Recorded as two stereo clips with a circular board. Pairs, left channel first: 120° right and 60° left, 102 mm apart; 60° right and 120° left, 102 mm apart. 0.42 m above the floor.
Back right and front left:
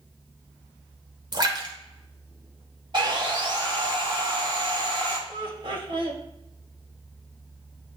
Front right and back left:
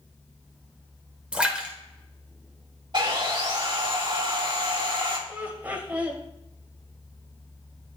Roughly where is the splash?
Ahead left.